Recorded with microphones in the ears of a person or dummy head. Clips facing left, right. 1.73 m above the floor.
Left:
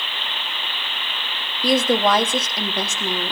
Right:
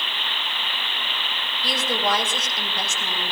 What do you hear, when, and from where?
1.6 s a woman speaking: 40° left (ahead or behind), 1.2 m; by 3.3 s 70° left (ahead or behind), 1.6 m